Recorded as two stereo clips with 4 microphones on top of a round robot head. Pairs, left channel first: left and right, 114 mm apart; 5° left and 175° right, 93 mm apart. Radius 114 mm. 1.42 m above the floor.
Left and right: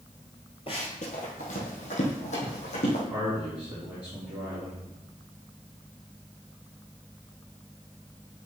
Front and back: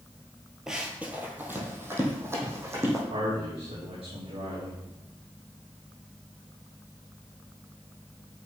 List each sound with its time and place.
0.7 s running footsteps: 105° left, 1.5 m; by 3.0 s 125° left, 4 m
3.1 s a man speaking: 170° right, 4 m